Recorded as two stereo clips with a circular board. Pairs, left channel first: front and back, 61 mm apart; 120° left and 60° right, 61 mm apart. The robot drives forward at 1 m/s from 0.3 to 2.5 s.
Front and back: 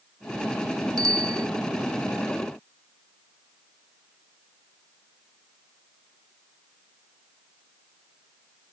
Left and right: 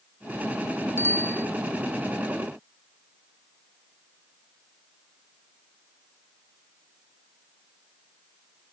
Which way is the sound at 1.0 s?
170° left.